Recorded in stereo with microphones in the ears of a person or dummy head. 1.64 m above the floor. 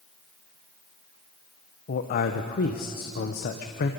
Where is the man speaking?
50° left (ahead or behind), 1.0 m.